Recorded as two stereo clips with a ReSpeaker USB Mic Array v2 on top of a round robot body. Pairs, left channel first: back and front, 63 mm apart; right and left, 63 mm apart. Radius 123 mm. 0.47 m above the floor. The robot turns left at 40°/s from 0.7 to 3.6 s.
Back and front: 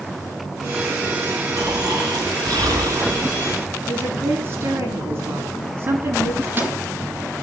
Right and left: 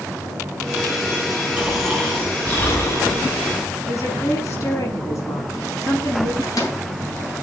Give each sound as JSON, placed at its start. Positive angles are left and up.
{"t": 1.6, "sound": "snoring", "azimuth_deg": 15, "distance_m": 6.0}
{"t": 3.9, "sound": "a woman speaking", "azimuth_deg": -55, "distance_m": 8.0}
{"t": 6.4, "sound": "a microwave", "azimuth_deg": -60, "distance_m": 7.0}